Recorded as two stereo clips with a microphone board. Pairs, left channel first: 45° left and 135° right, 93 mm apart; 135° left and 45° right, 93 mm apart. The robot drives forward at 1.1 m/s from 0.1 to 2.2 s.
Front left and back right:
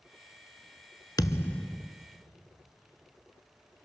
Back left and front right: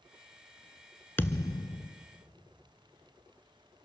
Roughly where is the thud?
Left.